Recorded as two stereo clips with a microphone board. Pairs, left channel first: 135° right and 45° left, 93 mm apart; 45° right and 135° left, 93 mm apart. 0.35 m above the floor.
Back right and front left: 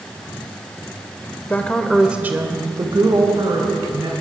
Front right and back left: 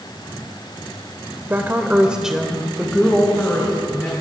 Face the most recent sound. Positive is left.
turn(degrees=25)